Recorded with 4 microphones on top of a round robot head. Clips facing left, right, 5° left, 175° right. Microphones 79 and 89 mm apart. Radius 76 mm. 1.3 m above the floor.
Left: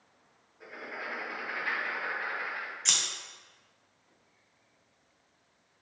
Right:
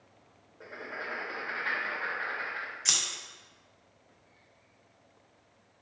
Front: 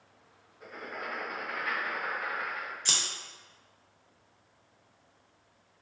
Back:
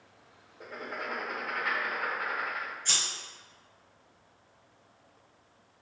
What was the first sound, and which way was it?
Writing, 150° right.